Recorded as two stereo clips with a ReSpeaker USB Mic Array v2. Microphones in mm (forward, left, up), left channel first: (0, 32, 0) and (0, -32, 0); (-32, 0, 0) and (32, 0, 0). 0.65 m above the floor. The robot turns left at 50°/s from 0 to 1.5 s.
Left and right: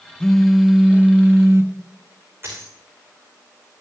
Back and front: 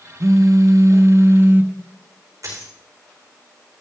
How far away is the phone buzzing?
About 0.7 m.